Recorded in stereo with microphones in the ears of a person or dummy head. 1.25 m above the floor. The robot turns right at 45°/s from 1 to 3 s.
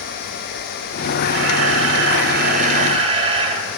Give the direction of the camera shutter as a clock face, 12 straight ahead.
4 o'clock.